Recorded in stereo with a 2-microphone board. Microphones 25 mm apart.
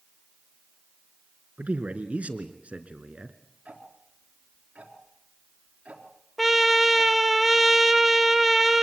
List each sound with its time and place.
1.6 s a man speaking: 65° right (ahead or behind), 2.5 m; by 3.4 s 45° right (ahead or behind), 2 m
3.6 s ticking: 65° right (ahead or behind), 3.5 m
6.4 s a trumpet: 5° right (ahead or behind), 1.2 m